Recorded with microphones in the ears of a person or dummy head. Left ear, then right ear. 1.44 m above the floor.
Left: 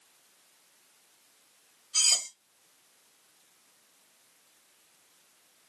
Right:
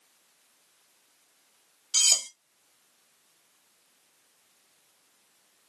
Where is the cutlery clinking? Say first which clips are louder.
Right 2 dB; 65° right (ahead or behind), 1.2 m.